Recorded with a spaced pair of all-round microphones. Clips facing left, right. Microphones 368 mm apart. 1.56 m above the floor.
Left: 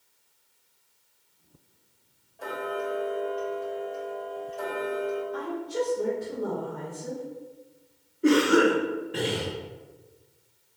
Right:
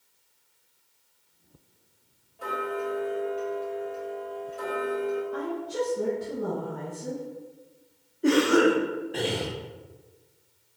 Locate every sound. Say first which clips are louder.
2.4 s ticking: right 1 dB; 15° right (ahead or behind), 1.2 m
5.3 s a woman speaking: even; 65° right (ahead or behind), 1.5 m
8.2 s a cough: even; 10° left (ahead or behind), 0.8 m